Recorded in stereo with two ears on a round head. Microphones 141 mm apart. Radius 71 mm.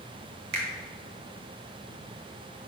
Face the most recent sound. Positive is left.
turn(degrees=-65)  # may be behind; listen again after turning